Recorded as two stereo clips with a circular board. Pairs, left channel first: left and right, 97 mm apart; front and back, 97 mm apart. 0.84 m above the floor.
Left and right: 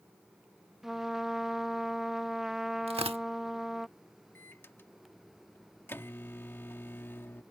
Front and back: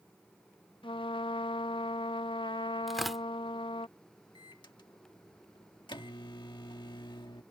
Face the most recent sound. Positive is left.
turn(degrees=25)